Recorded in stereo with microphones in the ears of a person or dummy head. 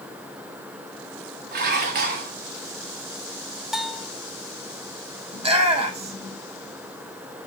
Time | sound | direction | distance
1.5 | dishes clattering | 55° right (ahead or behind) | 1.5 m
3.7 | a bell | 5° right (ahead or behind) | 0.6 m
5.3 | a shout | 30° right (ahead or behind) | 1.9 m